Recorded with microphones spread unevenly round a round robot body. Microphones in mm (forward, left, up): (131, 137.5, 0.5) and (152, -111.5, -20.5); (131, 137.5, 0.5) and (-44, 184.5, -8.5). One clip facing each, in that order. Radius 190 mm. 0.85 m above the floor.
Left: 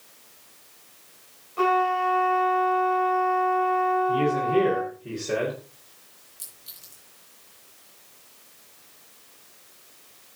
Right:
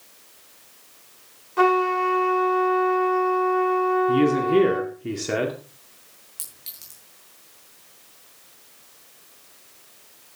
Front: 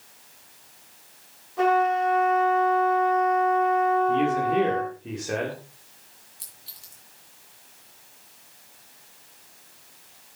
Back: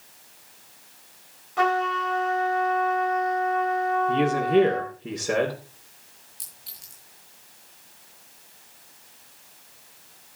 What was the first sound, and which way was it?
A trumpet, 145° right.